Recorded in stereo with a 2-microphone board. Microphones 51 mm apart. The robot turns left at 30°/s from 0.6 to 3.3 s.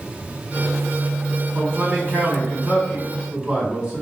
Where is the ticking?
I don't hear ticking.